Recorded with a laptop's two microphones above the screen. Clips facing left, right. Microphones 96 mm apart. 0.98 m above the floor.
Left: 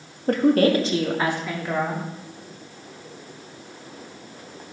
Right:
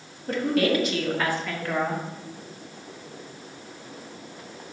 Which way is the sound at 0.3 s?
55° left (ahead or behind).